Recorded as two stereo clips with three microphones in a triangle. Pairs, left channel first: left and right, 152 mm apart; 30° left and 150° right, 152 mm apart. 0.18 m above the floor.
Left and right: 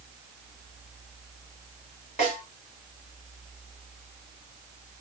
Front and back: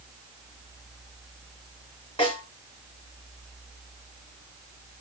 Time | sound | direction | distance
2.2 | a snare drum | 70° left | 2 m